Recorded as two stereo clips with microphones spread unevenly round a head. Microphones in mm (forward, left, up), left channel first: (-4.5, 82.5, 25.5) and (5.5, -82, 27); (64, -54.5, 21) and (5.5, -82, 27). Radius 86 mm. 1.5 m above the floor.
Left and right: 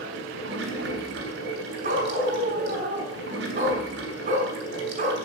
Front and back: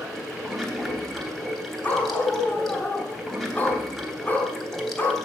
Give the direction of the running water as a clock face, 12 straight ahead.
2 o'clock.